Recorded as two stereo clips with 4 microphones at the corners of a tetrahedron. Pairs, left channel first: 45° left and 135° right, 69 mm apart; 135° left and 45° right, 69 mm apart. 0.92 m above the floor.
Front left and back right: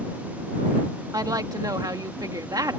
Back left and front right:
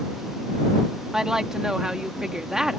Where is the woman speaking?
125° right.